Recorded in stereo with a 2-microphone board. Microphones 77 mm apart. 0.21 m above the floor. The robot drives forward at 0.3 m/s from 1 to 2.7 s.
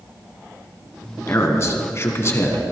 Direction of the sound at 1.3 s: 40° left (ahead or behind).